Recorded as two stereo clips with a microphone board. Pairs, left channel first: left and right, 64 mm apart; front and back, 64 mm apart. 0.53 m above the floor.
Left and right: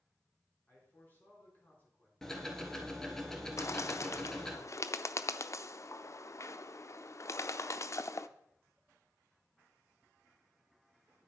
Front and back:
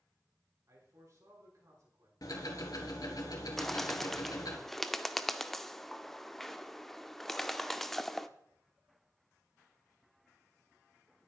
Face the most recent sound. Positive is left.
turn(degrees=85)